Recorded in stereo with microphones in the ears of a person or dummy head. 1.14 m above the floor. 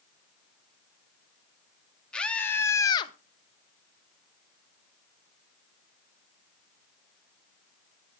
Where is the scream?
10° left (ahead or behind), 2.5 m; by 3.1 s 35° left (ahead or behind), 1.1 m.